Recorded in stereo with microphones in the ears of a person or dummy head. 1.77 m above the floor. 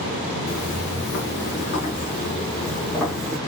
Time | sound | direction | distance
0.5 | footsteps | 40° left (ahead or behind) | 2.5 m